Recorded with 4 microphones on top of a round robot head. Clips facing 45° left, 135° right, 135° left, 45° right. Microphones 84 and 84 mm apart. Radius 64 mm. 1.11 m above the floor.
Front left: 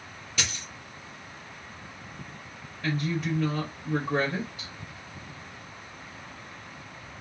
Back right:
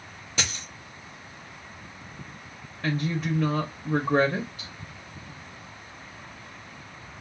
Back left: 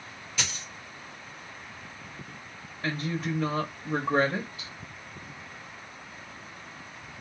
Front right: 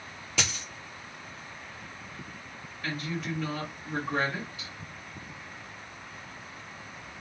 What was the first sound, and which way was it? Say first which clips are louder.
A dropped coin: back right 2 dB, front right 3 dB; 75° right.